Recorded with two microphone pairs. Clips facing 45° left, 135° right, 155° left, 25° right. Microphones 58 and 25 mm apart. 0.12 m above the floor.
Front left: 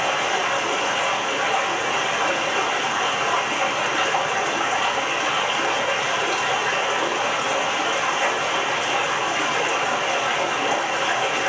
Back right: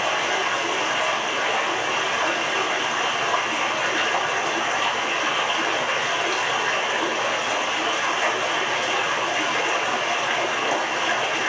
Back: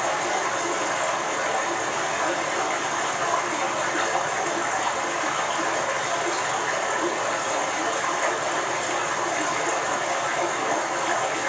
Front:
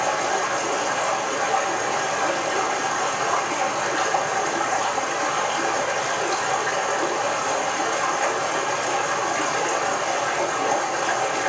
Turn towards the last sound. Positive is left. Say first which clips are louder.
# front left 1 dB, front 2 dB
turn(degrees=-40)